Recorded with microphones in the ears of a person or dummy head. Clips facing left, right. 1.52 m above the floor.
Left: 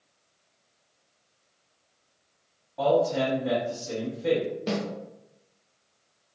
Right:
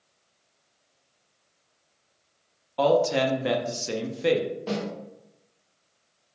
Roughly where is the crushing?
No crushing in this recording.